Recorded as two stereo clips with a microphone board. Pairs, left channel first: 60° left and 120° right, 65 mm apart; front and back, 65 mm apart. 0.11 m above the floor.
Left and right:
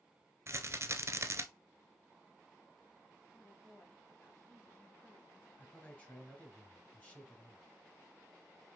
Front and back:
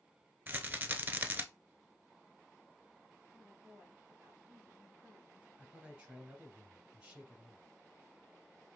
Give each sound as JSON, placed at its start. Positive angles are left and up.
{"t": 0.5, "sound": "a rattle", "azimuth_deg": -130, "distance_m": 0.7}
{"t": 3.3, "sound": "a woman speaking", "azimuth_deg": 105, "distance_m": 3.0}
{"t": 5.6, "sound": "a man speaking", "azimuth_deg": 115, "distance_m": 1.7}